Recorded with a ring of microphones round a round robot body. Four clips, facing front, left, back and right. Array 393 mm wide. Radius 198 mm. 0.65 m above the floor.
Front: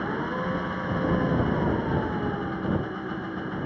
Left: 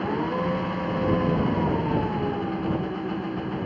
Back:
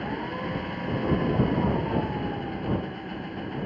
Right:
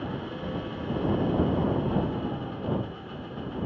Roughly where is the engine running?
Left.